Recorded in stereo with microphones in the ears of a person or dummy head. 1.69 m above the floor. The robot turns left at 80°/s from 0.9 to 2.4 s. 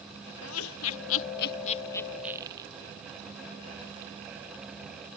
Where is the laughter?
80° left; by 2.7 s 20° right (ahead or behind).